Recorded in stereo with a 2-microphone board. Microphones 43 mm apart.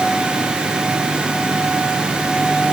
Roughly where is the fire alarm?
No fire alarm in this recording.